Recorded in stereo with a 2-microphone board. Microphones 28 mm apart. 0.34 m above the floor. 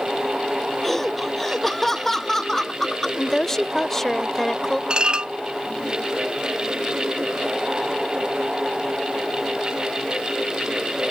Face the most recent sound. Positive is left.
turn(degrees=-30)  # may be behind; listen again after turning